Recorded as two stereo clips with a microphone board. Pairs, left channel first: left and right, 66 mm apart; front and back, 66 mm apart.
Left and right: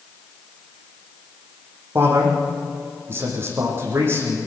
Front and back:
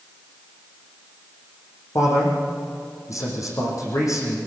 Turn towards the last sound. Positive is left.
turn(degrees=-40)